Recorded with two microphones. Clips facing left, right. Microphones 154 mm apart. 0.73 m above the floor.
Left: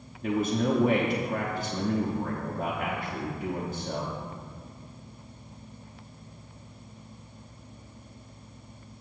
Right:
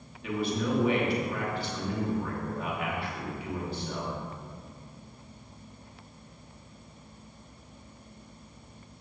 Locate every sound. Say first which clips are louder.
0.2 s a man speaking: left 4 dB; 45° left (ahead or behind), 1.0 m